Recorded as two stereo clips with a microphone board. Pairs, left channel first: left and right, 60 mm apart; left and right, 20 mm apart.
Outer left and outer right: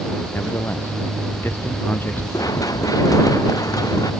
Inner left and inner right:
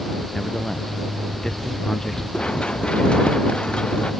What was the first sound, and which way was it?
A man speaking, 40° left (ahead or behind).